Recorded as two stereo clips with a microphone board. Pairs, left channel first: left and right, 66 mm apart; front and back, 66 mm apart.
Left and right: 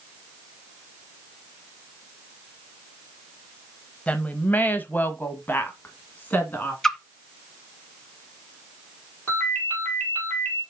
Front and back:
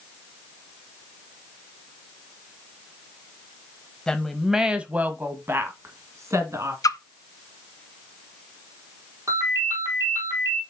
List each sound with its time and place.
4.1 s a woman speaking: 60° left, 1.0 m; by 6.7 s 150° left, 2 m
6.8 s a splash: 5° left, 0.9 m
9.3 s a ringtone: 150° left, 4.5 m